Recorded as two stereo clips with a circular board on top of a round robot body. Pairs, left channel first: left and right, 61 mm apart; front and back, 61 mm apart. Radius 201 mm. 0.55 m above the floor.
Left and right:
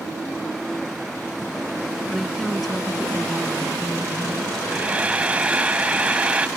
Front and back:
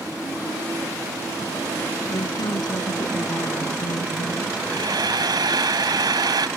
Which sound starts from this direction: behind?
Frying, at 4.7 s.